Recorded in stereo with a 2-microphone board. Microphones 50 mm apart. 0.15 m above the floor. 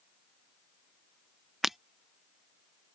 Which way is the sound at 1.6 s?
5° right (ahead or behind).